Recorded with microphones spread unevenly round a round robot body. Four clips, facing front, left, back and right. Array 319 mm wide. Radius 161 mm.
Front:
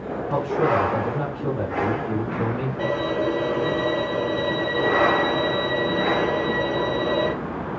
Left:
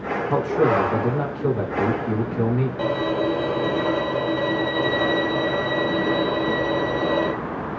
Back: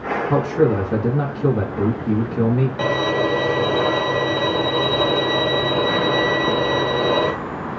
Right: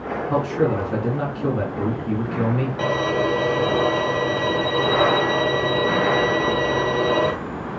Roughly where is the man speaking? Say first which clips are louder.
Left 2 dB, back 3 dB; behind.